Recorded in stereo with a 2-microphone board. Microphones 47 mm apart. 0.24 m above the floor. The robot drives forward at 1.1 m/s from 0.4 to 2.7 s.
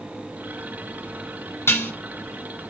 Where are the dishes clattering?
60° left (ahead or behind), 1.7 m; by 1.9 s 55° left (ahead or behind), 1.7 m.